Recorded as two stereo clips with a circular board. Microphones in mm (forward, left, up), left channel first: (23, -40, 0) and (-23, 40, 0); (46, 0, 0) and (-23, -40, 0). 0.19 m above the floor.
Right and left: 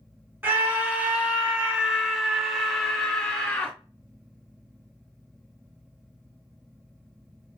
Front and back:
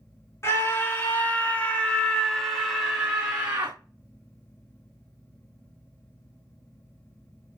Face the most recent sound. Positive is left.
turn(degrees=-120)